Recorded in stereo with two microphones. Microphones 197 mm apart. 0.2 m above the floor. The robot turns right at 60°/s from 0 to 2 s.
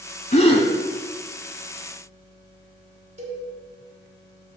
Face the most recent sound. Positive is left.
turn(degrees=-35)  # may be behind; listen again after turning